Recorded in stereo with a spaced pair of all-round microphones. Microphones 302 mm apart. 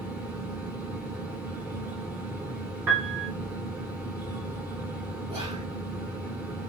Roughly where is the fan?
Centre.